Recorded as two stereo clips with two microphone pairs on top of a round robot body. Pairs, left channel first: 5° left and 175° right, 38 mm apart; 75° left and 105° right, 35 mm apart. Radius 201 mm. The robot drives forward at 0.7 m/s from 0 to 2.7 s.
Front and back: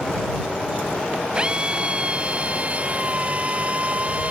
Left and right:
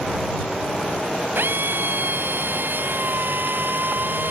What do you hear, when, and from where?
1.4 s a drill: 110° right; by 4.3 s 120° right